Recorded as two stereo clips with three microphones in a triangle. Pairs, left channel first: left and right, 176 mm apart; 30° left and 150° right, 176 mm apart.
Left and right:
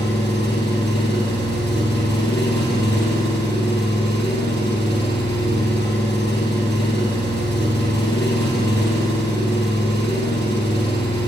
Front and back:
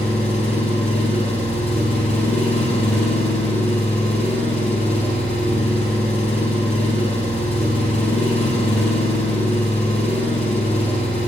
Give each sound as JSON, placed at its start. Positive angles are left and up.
{"t": 0.0, "sound": "an engine running", "azimuth_deg": 80, "distance_m": 3.5}